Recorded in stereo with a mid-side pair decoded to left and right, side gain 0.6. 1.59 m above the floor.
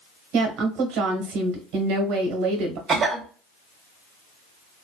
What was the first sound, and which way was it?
A woman speaking, 70° right.